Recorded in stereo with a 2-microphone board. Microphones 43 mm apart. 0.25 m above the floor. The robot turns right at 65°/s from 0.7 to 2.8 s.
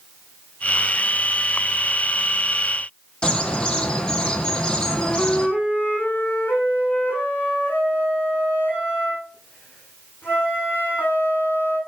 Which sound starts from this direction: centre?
A bird, at 3.2 s.